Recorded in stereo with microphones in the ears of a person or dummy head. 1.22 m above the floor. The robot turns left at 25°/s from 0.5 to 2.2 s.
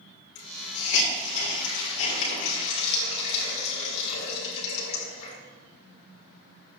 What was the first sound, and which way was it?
A hiss, 70° left (ahead or behind).